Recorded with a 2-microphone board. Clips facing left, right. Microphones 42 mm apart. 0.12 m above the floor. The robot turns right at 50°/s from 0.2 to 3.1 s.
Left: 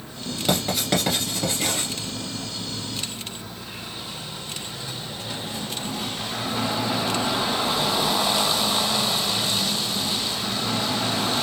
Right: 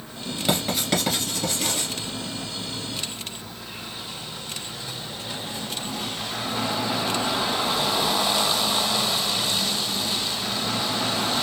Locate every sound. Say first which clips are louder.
0.5 s writing: left 1 dB; 10° right (ahead or behind), 2 m; by 1.9 s 40° left (ahead or behind), 2 m